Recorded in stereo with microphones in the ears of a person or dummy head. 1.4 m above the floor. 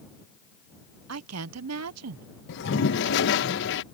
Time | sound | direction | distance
1.1 | a woman speaking | 80° right | ?
2.5 | a toilet flushing | 60° left (ahead or behind) | ?